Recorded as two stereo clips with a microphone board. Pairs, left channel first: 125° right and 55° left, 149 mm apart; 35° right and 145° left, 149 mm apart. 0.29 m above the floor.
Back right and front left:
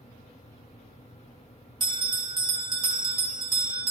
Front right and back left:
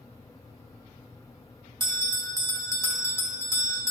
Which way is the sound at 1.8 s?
100° left.